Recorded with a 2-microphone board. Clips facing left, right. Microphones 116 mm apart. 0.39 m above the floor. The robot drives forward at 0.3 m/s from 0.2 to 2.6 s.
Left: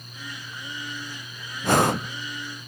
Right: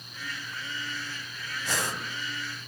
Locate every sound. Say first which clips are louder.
1.6 s breathing: left 13 dB; 60° left (ahead or behind), 0.6 m; by 2.1 s 70° left (ahead or behind), 0.5 m